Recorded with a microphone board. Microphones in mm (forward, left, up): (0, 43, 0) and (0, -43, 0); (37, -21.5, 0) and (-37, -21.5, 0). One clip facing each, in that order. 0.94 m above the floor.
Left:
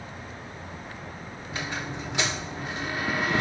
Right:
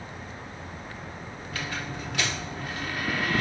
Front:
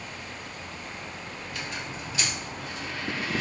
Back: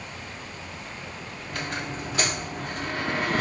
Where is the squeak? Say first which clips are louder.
Left 1 dB, back 6 dB; 155° left, 0.7 m.